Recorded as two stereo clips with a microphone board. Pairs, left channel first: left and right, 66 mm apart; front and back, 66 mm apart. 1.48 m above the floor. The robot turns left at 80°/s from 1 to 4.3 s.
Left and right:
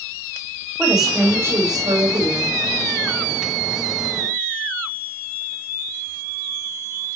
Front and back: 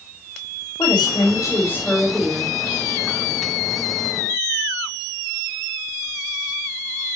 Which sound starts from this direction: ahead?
A woman speaking, at 0.8 s.